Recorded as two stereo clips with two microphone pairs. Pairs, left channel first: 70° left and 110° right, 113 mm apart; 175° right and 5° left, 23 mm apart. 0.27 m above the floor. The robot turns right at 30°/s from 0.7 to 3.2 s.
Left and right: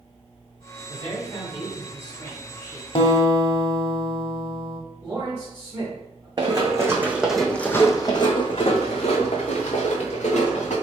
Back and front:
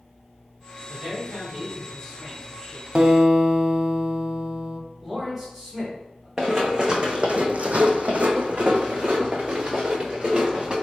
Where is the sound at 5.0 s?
80° right, 1.6 m.